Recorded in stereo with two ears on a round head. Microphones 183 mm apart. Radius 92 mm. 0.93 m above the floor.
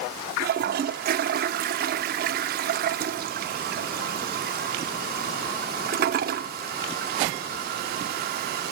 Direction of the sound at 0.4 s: 50° right (ahead or behind).